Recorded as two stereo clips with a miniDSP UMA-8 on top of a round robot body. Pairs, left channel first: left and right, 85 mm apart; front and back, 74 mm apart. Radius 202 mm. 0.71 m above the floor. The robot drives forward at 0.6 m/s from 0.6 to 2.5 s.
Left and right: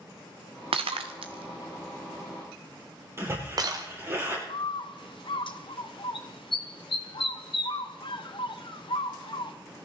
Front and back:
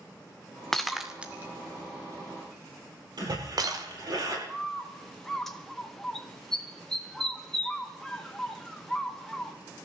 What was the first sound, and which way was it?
Breaking glass, 85° right.